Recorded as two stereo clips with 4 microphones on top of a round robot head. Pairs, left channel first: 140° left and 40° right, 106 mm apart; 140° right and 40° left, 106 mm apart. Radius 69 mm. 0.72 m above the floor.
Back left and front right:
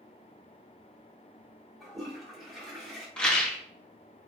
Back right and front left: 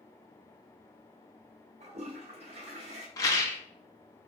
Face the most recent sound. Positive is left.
turn(degrees=-145)